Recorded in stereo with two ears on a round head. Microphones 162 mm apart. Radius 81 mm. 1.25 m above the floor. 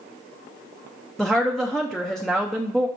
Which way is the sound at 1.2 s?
Centre (ahead or behind).